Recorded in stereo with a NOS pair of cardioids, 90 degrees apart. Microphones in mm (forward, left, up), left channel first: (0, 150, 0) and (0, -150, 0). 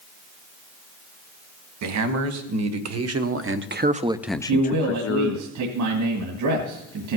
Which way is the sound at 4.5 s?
65° right.